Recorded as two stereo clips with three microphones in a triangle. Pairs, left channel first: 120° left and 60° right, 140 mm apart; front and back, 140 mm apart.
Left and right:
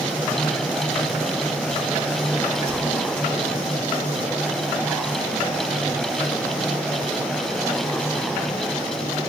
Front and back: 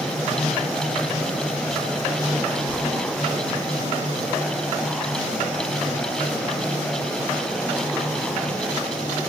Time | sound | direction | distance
2.7 | whispering | 60° right | 1.9 m